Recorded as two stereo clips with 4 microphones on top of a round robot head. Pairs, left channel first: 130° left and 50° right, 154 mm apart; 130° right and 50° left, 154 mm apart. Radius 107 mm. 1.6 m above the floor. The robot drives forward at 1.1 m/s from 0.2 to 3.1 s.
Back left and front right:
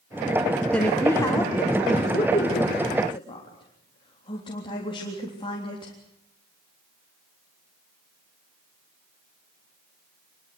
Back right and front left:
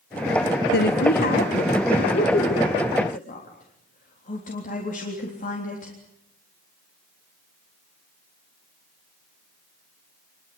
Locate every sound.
0.7 s a woman speaking: 145° right, 1.2 m; by 5.9 s 170° right, 3.5 m